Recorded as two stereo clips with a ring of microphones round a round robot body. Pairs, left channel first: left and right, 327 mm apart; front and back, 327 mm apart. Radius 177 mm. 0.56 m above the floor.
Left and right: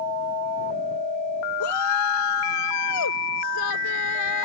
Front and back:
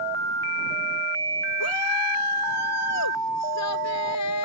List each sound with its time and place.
1.6 s a shout: 45° left